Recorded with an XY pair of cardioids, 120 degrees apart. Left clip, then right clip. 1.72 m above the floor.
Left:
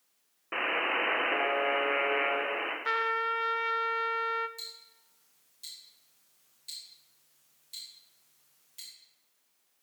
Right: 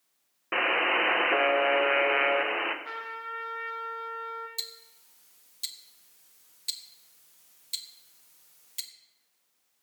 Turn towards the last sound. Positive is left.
turn(degrees=-65)